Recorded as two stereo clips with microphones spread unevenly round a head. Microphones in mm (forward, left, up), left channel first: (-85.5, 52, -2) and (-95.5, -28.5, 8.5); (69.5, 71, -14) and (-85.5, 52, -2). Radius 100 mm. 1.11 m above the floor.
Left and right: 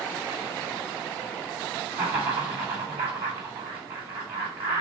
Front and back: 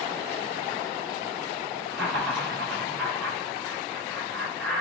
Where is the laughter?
85° right, 2 m.